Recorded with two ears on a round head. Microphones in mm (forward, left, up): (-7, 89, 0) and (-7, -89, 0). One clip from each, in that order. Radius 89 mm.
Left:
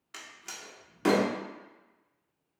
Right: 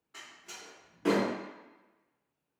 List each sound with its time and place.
0.1 s a door slam: 55° left (ahead or behind), 0.7 m